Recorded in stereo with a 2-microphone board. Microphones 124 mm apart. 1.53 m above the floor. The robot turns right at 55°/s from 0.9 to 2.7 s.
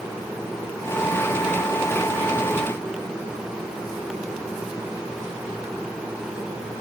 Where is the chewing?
I don't hear chewing.